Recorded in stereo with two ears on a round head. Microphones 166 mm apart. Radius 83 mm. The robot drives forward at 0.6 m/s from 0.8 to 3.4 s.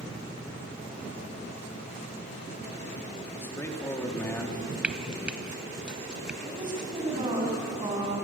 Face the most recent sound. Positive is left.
turn(degrees=-25)  # may be behind; listen again after turning